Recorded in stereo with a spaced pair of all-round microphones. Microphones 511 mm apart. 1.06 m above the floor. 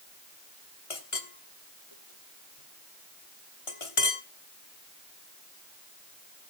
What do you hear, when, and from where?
0.9 s a clink: 80° left, 1.6 m